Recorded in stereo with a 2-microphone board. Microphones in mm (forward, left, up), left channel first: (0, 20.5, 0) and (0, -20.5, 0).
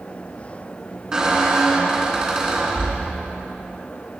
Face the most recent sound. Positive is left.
turn(degrees=-15)  # may be behind; listen again after turning